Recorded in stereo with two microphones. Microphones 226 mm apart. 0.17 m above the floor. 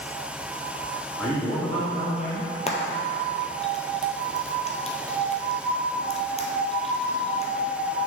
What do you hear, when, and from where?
1.2 s a man speaking: 5° left (ahead or behind), 1.9 m; by 2.5 s 5° right (ahead or behind), 1.5 m
2.7 s frying: 30° left (ahead or behind), 0.9 m